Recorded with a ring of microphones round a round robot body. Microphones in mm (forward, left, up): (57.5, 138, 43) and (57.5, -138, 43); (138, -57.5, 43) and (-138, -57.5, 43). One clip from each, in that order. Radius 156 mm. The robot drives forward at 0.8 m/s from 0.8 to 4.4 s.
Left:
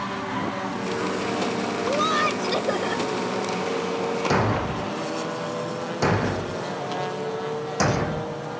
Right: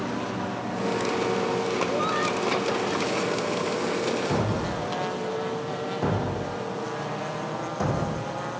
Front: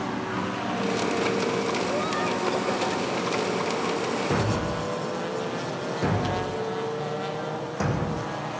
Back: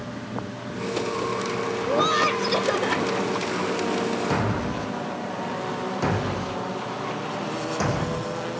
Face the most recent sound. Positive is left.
turn(degrees=105)